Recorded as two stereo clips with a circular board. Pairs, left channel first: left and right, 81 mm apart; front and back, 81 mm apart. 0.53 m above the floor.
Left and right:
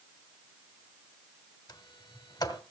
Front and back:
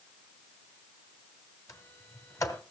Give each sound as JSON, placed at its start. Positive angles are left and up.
{"t": 1.7, "sound": "a sliding door", "azimuth_deg": 50, "distance_m": 1.7}